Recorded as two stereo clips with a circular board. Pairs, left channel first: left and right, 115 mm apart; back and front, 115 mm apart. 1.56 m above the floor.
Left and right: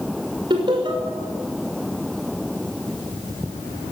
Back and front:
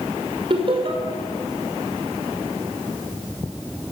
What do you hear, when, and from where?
0.5 s laughter: 45° right, 6 m